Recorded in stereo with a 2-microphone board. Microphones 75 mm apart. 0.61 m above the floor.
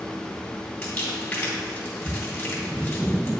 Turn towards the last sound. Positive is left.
turn(degrees=25)  # may be behind; listen again after turning